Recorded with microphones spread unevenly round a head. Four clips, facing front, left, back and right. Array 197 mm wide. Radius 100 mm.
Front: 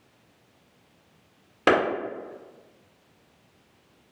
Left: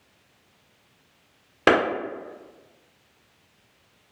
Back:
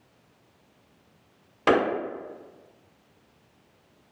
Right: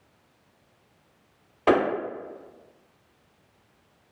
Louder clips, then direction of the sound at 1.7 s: Left 1 dB, even; 75° left.